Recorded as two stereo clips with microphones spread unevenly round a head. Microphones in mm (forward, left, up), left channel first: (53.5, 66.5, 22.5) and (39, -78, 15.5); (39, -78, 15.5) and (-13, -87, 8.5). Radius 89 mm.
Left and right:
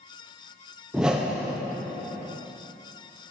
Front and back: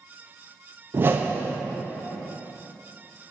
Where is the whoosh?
175° right, 0.5 m.